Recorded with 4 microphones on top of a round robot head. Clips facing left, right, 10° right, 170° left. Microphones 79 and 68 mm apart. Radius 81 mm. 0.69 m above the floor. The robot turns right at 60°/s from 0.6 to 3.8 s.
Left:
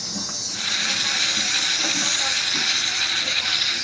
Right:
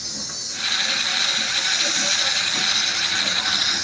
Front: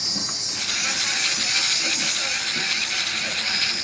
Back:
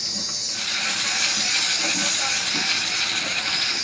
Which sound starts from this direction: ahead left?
An insect, at 0.0 s.